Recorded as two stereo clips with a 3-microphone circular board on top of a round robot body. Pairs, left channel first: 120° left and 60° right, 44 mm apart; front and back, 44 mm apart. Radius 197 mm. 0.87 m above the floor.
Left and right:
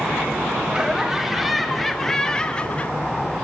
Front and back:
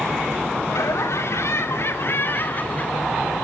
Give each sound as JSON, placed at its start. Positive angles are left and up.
{"t": 0.7, "sound": "laughter", "azimuth_deg": 15, "distance_m": 4.5}